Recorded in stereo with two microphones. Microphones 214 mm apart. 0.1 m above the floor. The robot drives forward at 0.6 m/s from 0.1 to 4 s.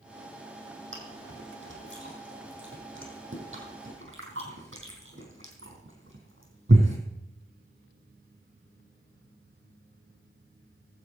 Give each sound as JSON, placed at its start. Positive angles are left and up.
{"t": 0.9, "sound": "chewing", "side_deg": -60, "distance_m": 3.5}